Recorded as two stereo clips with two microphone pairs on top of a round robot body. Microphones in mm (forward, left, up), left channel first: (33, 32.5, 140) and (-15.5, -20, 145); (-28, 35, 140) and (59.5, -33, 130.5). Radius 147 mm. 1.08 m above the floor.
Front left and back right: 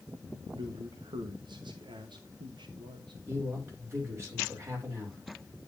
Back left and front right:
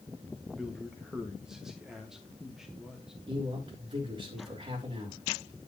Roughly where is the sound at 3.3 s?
Right.